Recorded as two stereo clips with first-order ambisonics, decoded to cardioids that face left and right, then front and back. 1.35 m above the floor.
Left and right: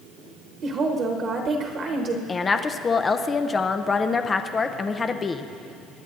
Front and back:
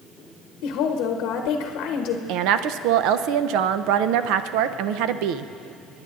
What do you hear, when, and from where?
0.6 s a woman speaking: 35° right, 0.9 m
2.3 s a woman speaking: 160° left, 0.5 m